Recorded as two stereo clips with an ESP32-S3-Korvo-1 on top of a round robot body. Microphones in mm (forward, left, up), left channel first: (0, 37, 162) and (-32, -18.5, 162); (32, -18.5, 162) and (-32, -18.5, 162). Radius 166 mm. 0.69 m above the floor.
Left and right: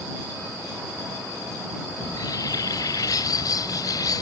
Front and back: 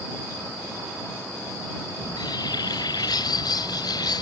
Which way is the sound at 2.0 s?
25° left.